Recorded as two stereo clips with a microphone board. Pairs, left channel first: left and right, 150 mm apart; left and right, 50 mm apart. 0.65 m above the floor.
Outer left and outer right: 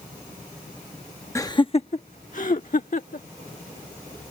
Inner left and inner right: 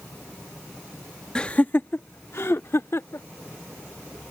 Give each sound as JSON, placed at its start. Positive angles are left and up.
{"t": 1.4, "sound": "laughter", "side_deg": 20}